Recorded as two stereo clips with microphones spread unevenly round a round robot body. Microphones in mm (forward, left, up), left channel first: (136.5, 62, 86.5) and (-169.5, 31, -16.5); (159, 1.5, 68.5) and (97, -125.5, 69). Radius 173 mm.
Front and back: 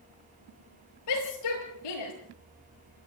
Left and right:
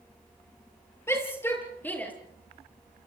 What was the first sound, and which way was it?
A shout, 10° right.